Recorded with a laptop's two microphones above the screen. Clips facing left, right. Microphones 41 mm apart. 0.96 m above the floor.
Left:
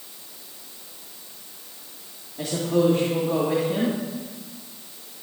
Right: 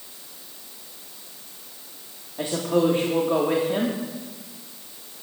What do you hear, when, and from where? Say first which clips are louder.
2.4 s a woman speaking: even; 25° right (ahead or behind), 1.8 m